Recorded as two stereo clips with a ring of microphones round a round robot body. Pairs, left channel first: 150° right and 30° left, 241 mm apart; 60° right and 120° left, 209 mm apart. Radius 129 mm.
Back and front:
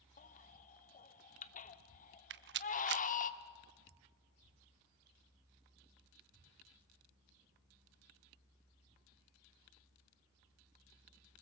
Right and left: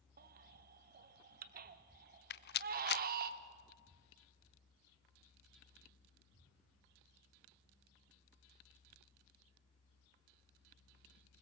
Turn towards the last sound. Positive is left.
turn(degrees=-15)